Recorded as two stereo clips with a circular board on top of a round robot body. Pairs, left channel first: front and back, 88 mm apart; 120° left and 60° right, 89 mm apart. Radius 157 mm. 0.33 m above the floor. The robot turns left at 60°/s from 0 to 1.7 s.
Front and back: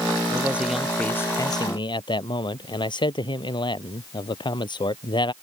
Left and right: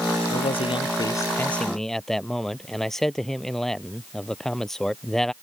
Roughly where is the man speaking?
Behind left.